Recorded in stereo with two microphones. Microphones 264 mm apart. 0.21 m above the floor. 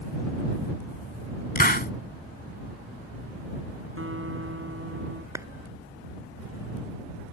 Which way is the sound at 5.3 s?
10° right (ahead or behind).